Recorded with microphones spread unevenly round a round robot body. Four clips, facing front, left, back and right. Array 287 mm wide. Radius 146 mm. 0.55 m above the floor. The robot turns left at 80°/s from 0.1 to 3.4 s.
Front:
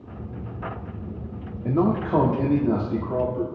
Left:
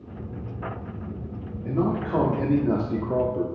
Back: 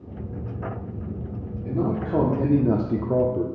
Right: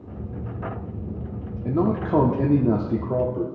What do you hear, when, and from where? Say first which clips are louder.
1.6 s a man speaking: right 3 dB, front 4 dB; 50° right, 1.1 m; by 3.5 s 170° left, 1.1 m